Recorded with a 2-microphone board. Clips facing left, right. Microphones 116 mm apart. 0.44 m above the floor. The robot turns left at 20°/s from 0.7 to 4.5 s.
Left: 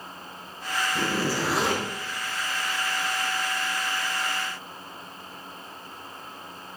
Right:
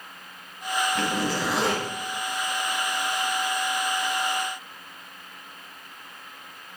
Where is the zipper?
15° left (ahead or behind), 5.5 m; by 1.9 s 5° right (ahead or behind), 5.5 m.